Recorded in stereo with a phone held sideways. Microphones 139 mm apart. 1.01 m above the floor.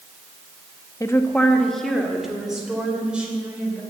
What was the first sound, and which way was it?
A woman speaking, 25° left (ahead or behind).